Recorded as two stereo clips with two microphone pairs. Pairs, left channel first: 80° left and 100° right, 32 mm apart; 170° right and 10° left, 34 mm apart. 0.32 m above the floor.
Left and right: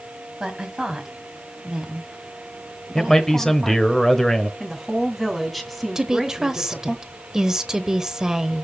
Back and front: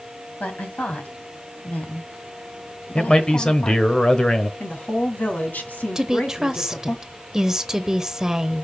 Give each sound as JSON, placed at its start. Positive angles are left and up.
{"t": 0.4, "sound": "a woman speaking", "azimuth_deg": -170, "distance_m": 2.0}
{"t": 3.0, "sound": "a man speaking", "azimuth_deg": 145, "distance_m": 1.1}
{"t": 4.6, "sound": "a woman speaking", "azimuth_deg": 170, "distance_m": 2.0}
{"t": 6.0, "sound": "a woman speaking", "azimuth_deg": -50, "distance_m": 0.9}